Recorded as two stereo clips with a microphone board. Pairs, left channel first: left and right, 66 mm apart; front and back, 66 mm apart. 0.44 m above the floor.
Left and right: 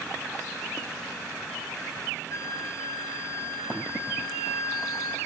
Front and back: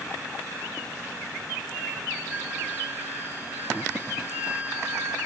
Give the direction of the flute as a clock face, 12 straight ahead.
8 o'clock.